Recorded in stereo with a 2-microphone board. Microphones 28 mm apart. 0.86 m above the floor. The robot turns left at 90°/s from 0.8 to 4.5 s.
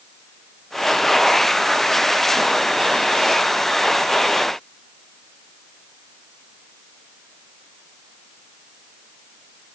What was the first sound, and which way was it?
Only background noise.